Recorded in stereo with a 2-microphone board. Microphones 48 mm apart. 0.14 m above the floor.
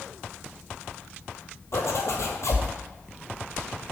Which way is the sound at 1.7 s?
70° left (ahead or behind).